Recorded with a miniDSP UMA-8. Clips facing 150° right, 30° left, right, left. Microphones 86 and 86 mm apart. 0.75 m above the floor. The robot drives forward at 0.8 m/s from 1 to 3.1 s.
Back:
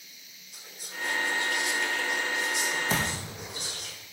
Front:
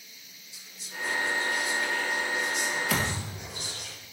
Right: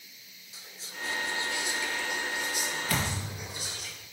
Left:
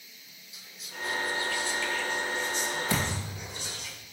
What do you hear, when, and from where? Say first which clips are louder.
0.5 s whispering: even, left 1 dB; 140° right, 0.6 m; by 3.9 s 170° right, 2 m
2.9 s a thud: even, left 1 dB; 150° left, 1.9 m; by 3.5 s 155° left, 2.0 m